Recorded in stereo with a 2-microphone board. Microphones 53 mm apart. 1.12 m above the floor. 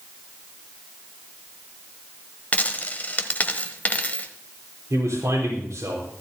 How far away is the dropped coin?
About 1.1 m.